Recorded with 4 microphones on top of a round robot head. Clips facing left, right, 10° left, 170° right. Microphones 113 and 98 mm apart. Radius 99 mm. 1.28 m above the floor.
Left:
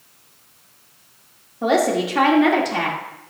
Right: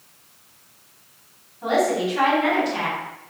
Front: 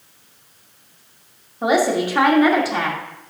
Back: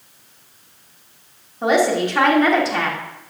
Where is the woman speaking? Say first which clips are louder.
Left 2 dB, back 1 dB; 90° left, 2.5 m.